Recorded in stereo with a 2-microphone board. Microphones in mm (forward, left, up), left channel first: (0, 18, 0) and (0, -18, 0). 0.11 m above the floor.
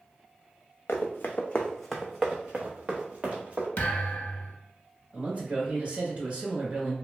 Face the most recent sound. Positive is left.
turn(degrees=-30)  # may be behind; listen again after turning